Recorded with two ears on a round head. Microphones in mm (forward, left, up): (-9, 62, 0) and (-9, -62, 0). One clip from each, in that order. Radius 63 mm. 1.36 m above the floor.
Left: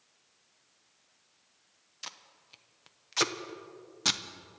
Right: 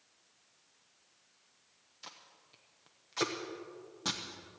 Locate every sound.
2.0 s tape being pulled: 45° left (ahead or behind), 0.7 m